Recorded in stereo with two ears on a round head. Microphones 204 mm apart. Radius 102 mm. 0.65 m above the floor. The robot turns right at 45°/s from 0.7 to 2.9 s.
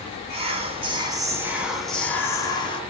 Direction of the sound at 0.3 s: 50° right.